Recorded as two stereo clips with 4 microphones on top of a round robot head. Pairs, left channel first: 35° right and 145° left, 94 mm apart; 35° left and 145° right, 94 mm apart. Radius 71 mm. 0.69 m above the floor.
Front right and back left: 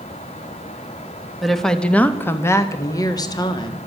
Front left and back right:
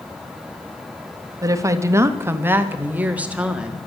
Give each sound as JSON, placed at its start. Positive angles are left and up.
{"t": 1.4, "sound": "a woman speaking", "azimuth_deg": -125, "distance_m": 1.2}